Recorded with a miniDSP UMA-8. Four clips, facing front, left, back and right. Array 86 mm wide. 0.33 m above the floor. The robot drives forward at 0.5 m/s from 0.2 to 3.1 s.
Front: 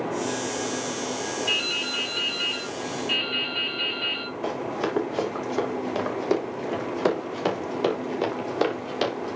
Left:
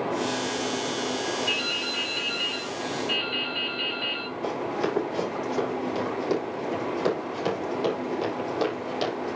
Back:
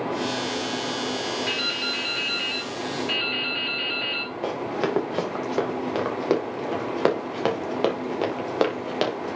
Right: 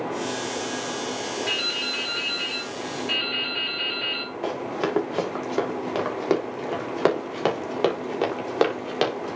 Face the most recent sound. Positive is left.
turn(degrees=-125)